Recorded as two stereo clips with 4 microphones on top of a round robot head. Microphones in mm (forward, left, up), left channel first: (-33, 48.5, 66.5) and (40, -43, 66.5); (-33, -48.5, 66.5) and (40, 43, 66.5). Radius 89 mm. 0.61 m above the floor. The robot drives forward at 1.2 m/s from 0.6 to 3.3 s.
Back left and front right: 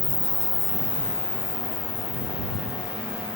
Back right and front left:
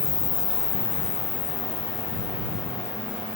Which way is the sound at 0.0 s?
160° right.